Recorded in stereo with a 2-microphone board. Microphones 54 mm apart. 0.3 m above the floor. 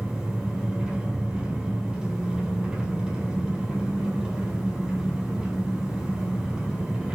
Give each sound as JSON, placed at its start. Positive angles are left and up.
{"t": 0.0, "sound": "an engine running", "side_deg": -20, "distance_m": 2.0}